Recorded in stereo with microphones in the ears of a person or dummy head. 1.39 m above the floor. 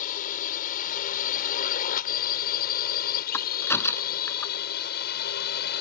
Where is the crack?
15° left (ahead or behind).